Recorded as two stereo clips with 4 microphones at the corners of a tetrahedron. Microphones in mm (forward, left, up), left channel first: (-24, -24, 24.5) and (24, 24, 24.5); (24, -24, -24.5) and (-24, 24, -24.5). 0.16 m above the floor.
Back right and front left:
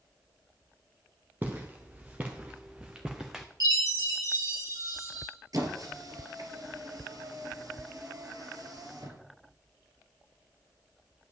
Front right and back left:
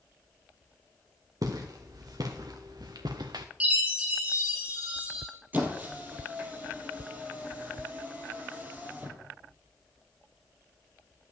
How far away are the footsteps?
About 1.9 m.